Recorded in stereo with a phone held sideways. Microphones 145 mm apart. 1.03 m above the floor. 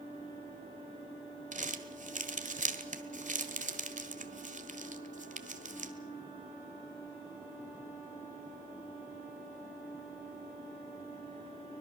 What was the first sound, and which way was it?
Crumpling, 60° right (ahead or behind).